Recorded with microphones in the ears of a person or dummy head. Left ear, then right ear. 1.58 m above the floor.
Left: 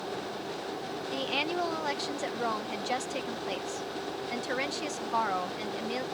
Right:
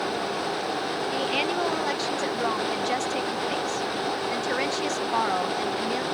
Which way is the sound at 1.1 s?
5° right (ahead or behind).